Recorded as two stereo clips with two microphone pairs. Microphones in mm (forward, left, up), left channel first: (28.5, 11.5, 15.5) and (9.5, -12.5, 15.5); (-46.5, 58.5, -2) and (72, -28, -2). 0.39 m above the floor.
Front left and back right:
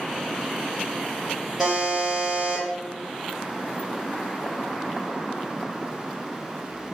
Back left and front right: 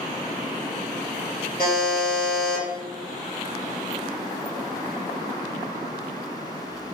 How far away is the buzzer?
About 1.3 m.